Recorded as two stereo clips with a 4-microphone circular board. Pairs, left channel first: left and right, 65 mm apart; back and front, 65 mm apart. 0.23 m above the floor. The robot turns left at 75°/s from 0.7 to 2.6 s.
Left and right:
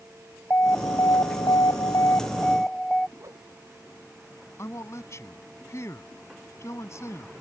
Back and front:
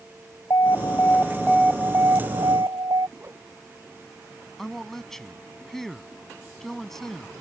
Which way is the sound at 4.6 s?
100° left.